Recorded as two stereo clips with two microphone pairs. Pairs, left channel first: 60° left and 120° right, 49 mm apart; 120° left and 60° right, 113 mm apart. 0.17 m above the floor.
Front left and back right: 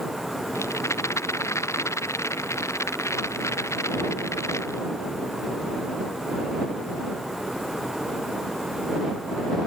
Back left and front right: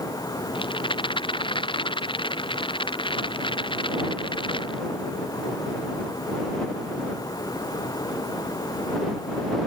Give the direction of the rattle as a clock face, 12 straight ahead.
9 o'clock.